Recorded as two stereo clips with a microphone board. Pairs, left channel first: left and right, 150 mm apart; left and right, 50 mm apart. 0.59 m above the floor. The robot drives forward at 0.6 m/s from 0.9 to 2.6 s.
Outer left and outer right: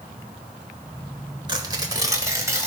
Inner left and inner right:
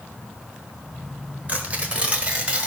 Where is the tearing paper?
30° right (ahead or behind), 1.2 m; by 2.7 s 20° right (ahead or behind), 1.8 m.